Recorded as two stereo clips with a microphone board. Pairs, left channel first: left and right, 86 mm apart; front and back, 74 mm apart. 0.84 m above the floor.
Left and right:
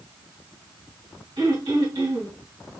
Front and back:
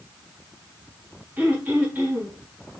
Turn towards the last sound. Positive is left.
turn(degrees=-110)